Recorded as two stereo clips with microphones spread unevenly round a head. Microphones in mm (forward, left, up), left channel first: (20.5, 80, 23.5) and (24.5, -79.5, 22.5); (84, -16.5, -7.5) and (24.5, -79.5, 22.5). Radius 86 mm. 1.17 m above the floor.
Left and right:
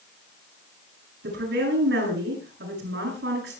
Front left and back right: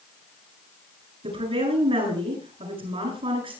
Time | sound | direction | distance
1.2 | a woman speaking | 120° right | 10 m